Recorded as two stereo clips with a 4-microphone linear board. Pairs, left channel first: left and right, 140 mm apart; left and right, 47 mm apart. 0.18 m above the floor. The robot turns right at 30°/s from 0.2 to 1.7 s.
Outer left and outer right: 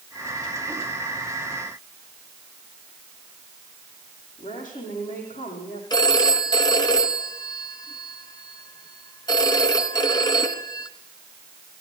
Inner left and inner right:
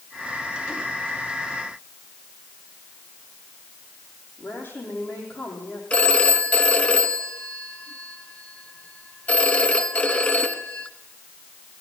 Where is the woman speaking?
70° left (ahead or behind), 8 m.